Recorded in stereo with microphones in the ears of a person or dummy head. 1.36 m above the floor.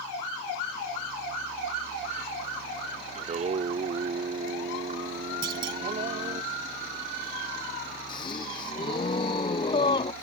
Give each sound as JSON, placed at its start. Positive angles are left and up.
{"t": 3.1, "sound": "singing", "side_deg": -35}
{"t": 5.4, "sound": "a clunk", "side_deg": -25}
{"t": 8.1, "sound": "a gasp", "side_deg": 35}